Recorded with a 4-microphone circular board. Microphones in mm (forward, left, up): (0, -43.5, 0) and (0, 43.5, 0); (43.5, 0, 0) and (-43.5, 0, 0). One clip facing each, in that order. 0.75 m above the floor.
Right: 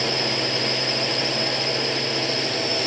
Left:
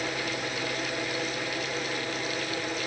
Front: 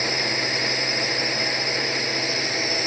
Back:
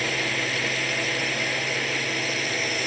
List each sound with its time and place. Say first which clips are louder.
0.0 s a drone: right 6 dB, front 1 dB; 80° right